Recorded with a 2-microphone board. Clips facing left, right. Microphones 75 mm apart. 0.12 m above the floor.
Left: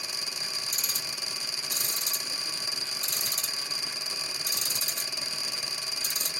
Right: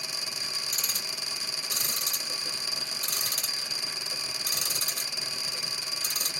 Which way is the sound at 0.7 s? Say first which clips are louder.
Even; 55° right (ahead or behind).